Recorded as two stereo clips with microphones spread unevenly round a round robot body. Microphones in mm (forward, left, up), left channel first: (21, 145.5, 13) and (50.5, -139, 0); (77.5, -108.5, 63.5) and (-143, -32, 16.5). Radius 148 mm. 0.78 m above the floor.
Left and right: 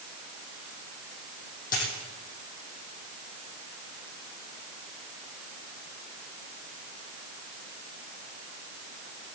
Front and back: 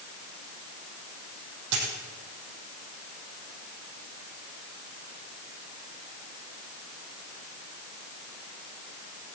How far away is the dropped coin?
About 5.5 m.